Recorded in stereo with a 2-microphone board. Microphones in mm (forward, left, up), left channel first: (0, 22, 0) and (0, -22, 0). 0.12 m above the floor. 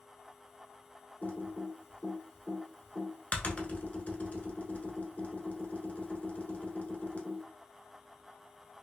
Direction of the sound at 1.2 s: 35° left (ahead or behind).